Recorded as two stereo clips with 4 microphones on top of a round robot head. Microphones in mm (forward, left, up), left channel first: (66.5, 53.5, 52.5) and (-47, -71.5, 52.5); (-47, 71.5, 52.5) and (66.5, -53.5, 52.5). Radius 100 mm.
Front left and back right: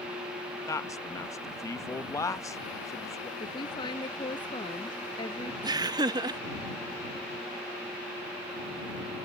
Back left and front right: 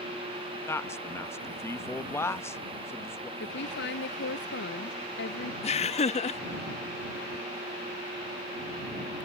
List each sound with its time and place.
0.7 s a man speaking: 80° left
3.4 s a woman speaking: 115° left
5.6 s laughter: 170° left